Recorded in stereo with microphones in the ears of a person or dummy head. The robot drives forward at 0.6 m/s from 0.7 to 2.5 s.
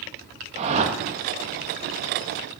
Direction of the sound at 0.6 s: 35° right (ahead or behind).